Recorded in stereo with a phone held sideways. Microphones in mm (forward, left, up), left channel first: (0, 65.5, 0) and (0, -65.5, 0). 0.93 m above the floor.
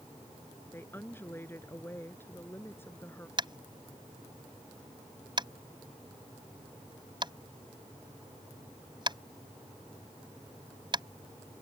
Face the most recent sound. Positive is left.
turn(degrees=-35)  # may be behind; listen again after turning